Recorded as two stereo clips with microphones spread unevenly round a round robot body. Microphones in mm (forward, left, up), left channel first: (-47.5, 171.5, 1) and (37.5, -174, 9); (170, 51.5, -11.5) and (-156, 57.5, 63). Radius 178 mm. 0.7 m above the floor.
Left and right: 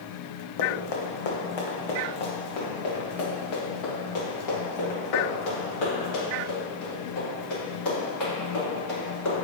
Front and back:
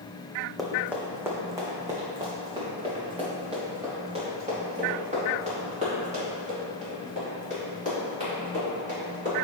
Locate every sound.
0.6 s running footsteps: 95° left, 1.6 m; by 9.4 s 115° left, 8.5 m